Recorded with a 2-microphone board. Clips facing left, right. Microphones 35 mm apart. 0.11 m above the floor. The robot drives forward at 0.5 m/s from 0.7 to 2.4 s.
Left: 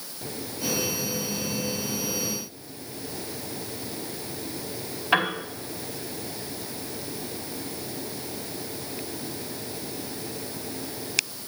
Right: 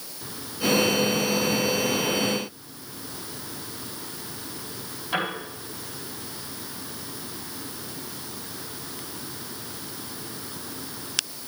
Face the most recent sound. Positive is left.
turn(degrees=55)  # may be behind; listen again after turning